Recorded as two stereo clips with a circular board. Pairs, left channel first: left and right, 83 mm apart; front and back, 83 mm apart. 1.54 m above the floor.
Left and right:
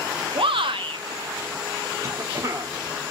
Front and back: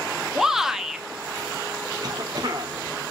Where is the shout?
95° right, 0.7 m.